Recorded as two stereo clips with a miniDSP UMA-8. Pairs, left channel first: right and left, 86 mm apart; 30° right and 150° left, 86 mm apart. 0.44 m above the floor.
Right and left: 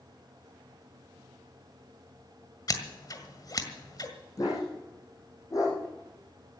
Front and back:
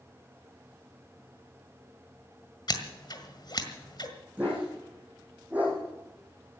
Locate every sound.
2.7 s scissors: 55° right, 1.8 m
4.4 s a dog barking: 135° right, 6 m